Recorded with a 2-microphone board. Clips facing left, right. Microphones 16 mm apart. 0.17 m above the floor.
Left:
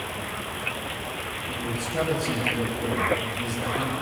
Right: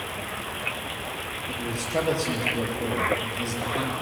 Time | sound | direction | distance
1.5 | a man speaking | 70° right (ahead or behind) | 5 m